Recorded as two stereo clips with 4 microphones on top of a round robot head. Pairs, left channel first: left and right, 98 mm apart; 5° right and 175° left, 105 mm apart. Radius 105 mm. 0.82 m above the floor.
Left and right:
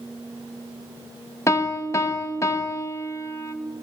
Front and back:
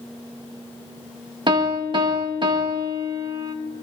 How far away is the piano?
About 1.7 m.